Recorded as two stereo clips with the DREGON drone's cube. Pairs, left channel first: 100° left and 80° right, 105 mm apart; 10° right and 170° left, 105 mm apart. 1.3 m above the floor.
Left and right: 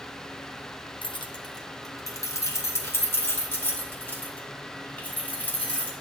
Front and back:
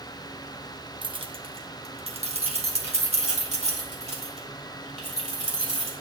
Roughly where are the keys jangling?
Behind left.